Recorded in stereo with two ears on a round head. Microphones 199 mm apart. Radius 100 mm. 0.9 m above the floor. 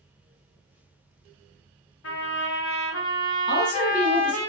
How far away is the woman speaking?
About 1.2 m.